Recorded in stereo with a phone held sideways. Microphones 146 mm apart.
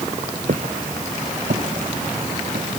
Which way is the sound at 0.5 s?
70° right (ahead or behind).